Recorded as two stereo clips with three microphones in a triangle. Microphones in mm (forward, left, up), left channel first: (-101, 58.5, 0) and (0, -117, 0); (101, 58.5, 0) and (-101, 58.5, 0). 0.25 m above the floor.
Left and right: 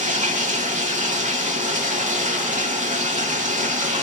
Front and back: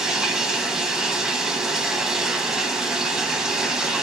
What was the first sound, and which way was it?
Running water, 95° right.